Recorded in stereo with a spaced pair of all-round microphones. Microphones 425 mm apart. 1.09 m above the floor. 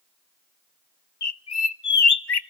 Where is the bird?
65° left (ahead or behind), 0.6 m.